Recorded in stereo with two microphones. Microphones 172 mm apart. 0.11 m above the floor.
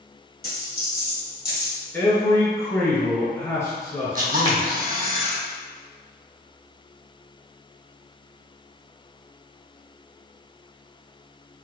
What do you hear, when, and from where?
0.4 s a dropped coin: 65° left (ahead or behind), 1.8 m
1.9 s a man speaking: 15° left (ahead or behind), 1.4 m
4.2 s a camera shutter: 55° right (ahead or behind), 0.7 m